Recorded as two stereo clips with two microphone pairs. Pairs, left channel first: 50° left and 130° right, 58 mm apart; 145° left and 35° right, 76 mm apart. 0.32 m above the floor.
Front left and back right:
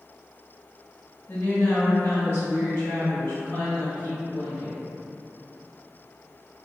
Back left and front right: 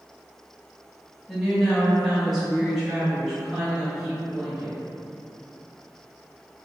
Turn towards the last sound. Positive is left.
turn(degrees=50)